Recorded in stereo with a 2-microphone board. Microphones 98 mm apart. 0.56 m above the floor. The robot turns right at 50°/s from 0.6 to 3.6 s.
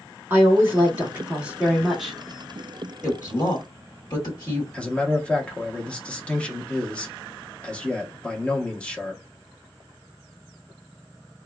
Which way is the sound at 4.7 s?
10° left (ahead or behind).